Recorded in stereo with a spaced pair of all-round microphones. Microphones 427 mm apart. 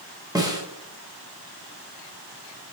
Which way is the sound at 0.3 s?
10° right (ahead or behind).